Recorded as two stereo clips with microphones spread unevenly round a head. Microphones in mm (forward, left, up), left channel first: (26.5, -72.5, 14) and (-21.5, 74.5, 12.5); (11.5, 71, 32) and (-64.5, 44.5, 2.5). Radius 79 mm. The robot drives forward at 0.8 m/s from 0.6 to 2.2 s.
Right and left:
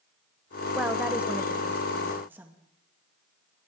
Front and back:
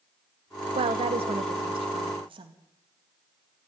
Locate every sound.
0.8 s a woman speaking: 165° right, 0.9 m; by 2.5 s 175° right, 2.0 m